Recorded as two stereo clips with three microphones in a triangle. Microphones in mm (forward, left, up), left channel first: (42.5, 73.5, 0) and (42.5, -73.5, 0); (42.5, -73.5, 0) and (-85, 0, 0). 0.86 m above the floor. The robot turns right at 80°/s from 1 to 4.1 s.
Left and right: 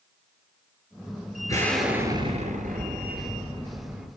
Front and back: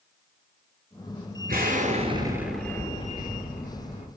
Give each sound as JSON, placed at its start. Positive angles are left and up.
{"t": 1.5, "sound": "an explosion", "azimuth_deg": 155, "distance_m": 4.0}